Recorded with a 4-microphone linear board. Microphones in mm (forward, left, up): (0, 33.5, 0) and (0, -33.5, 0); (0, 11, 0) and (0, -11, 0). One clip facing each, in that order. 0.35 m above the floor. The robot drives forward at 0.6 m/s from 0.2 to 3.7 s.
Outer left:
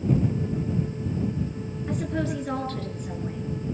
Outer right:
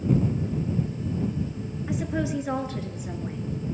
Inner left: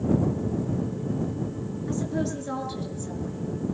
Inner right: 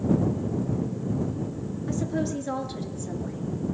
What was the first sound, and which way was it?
A woman speaking, 10° right (ahead or behind).